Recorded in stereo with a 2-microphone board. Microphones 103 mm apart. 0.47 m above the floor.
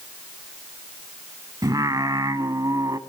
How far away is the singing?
About 0.8 m.